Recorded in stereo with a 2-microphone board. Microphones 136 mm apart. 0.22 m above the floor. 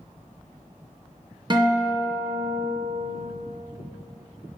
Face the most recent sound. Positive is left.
turn(degrees=-35)  # may be behind; listen again after turning